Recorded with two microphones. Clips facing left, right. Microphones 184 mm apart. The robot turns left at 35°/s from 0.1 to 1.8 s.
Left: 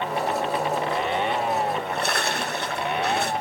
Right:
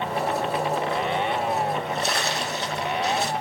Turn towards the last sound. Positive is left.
turn(degrees=60)  # may be behind; listen again after turning